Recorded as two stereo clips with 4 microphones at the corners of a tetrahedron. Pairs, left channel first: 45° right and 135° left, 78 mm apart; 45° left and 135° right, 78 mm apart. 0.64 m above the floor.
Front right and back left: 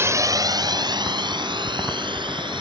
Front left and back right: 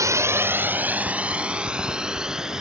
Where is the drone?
175° right; by 2.6 s 140° left.